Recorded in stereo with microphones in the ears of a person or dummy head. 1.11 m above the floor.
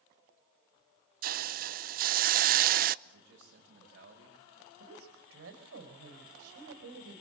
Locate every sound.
1.2 s a hiss: 45° right (ahead or behind), 0.5 m
3.0 s a man speaking: 55° right (ahead or behind), 5.5 m
4.8 s a woman speaking: 85° right, 4 m